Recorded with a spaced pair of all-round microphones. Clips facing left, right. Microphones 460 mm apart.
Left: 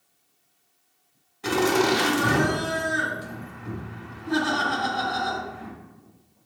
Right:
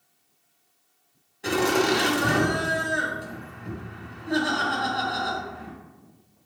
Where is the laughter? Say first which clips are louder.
Left 1 dB; 20° left (ahead or behind), 0.8 m.